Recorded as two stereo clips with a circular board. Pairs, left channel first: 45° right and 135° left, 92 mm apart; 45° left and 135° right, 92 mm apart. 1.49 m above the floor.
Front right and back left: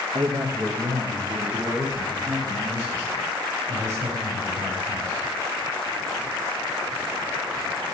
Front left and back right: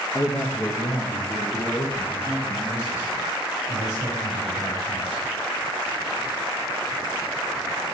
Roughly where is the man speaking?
Left.